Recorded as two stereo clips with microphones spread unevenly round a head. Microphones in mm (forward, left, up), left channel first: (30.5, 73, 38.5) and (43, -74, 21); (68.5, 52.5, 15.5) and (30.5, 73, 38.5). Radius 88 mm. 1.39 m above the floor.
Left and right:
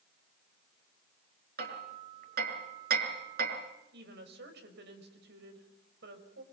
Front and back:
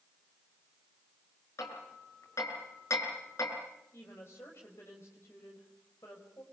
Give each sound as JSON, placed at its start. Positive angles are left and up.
{"t": 1.6, "sound": "hammering", "azimuth_deg": -65, "distance_m": 5.0}
{"t": 3.9, "sound": "a woman speaking", "azimuth_deg": -85, "distance_m": 5.5}